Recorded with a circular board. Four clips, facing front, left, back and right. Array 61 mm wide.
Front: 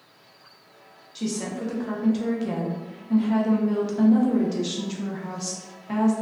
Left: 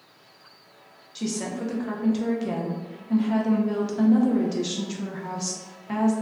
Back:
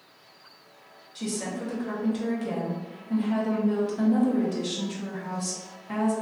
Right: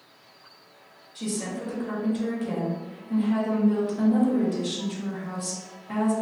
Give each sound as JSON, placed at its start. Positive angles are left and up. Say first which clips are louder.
{"t": 1.1, "sound": "a woman speaking", "louder": "left 2 dB, front 3 dB", "azimuth_deg": 60, "distance_m": 0.6}